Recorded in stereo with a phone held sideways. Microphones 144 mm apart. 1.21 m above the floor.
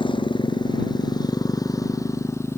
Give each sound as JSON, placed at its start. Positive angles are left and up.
{"t": 0.0, "sound": "a motorcycle", "side_deg": 35}